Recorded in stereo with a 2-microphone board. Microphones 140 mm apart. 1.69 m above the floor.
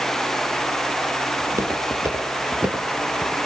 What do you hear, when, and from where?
1.4 s footsteps: 20° right (ahead or behind), 3 m; by 3.4 s centre (ahead or behind), 1.9 m